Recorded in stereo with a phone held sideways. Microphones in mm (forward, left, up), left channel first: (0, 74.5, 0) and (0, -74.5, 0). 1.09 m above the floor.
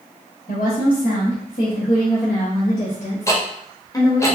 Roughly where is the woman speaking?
Left.